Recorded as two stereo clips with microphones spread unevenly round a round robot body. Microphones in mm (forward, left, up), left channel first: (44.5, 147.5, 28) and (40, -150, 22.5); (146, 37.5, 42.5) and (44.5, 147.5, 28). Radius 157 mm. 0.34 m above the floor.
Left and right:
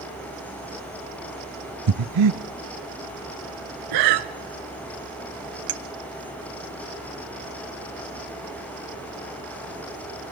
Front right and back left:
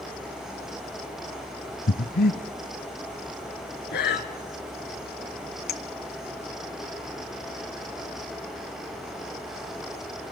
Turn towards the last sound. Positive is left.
turn(degrees=-55)